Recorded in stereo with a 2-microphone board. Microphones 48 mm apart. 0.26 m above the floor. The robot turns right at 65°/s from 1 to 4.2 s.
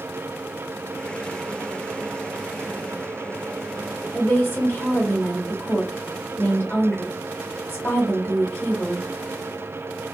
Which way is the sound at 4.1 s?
30° left (ahead or behind).